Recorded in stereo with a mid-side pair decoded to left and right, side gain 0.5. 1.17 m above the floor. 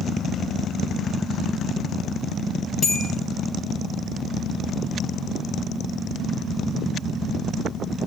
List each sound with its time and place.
2.8 s a bell: 30° left, 2.5 m